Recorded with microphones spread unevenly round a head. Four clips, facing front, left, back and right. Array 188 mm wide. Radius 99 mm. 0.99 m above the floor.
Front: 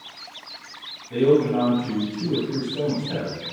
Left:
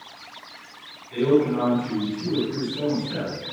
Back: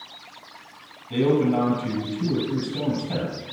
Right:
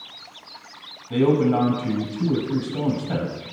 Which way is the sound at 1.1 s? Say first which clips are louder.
Right 1 dB, front 2 dB; 95° right.